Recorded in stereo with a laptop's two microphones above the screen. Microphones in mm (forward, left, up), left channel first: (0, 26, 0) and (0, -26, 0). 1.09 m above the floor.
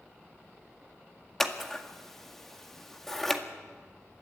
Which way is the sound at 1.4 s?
5° left (ahead or behind).